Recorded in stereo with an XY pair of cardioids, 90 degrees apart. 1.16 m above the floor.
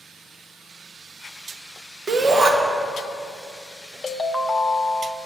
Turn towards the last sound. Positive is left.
turn(degrees=25)